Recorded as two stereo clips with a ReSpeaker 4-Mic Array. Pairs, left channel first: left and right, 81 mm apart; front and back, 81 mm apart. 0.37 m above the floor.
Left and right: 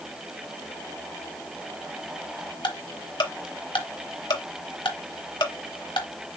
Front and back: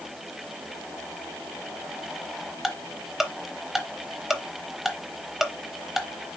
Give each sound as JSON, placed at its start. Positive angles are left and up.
{"t": 2.6, "sound": "ticking", "azimuth_deg": 95, "distance_m": 0.7}